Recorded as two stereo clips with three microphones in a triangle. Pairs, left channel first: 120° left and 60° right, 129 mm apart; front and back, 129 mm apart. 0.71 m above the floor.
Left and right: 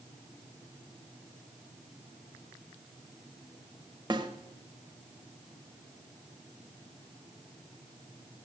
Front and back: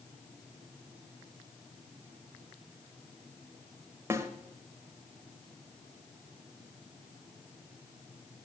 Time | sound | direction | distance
4.1 | a snare drum | 110° right | 0.9 m